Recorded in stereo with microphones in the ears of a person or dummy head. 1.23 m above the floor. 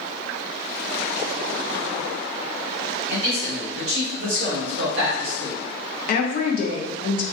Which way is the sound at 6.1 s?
40° left (ahead or behind).